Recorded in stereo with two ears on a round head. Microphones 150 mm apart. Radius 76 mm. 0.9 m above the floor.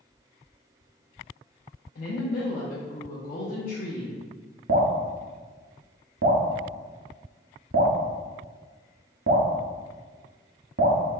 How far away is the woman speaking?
About 0.6 m.